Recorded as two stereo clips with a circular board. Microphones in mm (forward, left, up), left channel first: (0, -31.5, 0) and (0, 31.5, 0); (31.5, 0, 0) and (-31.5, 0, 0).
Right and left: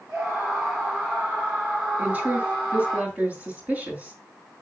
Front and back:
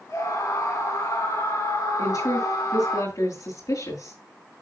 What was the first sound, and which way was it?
A scream, 10° left.